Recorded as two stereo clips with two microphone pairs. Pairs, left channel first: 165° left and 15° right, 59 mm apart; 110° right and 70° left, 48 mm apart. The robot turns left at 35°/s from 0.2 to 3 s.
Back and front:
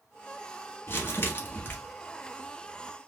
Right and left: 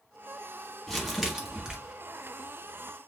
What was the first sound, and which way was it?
Crumpling, 160° left.